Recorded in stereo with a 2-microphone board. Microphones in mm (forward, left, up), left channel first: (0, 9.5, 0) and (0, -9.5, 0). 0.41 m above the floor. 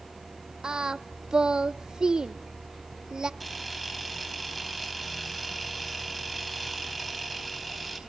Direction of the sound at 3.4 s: Centre (ahead or behind).